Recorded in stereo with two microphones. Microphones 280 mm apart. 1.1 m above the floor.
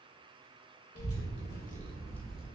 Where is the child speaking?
60° left (ahead or behind), 0.8 m; by 2.5 s 5° right (ahead or behind), 0.7 m.